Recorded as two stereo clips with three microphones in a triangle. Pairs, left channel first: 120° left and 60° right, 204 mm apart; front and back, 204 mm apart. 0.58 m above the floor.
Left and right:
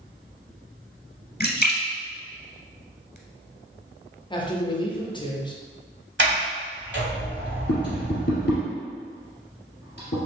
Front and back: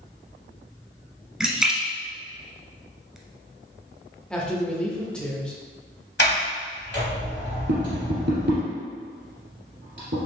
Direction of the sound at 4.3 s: 80° left.